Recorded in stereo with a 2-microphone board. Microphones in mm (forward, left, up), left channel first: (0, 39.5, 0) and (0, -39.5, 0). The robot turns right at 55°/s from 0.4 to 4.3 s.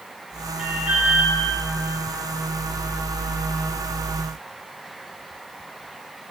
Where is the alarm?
175° right, 5 m; by 1.3 s 135° right, 5 m.